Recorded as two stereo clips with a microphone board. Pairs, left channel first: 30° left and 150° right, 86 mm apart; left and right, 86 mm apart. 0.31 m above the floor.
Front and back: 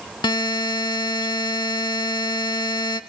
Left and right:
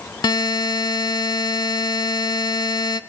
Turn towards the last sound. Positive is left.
turn(degrees=60)